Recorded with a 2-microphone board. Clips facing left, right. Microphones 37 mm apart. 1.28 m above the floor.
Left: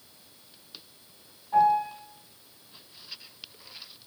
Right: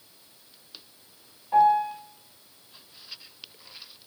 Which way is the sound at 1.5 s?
60° right (ahead or behind).